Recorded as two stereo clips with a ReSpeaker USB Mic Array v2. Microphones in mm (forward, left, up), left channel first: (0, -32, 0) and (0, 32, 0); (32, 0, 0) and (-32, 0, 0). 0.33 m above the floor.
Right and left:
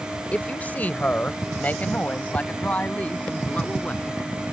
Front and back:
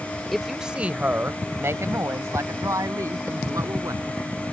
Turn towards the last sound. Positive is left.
turn(degrees=-160)